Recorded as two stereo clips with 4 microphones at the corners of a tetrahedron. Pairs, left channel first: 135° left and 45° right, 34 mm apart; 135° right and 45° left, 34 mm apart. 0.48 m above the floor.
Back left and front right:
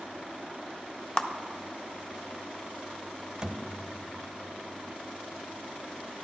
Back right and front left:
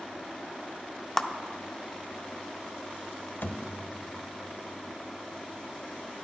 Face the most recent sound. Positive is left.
turn(degrees=-115)